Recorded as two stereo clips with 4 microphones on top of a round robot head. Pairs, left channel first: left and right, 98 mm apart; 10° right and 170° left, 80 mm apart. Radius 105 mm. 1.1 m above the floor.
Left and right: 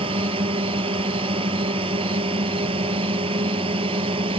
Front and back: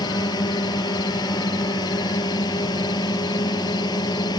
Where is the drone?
55° right.